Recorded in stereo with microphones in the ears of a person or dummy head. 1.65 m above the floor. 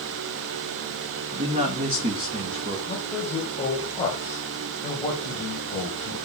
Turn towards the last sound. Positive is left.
turn(degrees=25)  # may be behind; listen again after turning